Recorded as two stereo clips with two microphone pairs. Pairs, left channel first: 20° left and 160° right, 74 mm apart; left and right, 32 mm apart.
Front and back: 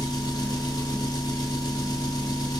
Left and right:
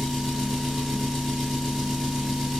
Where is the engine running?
Straight ahead, 1.4 m.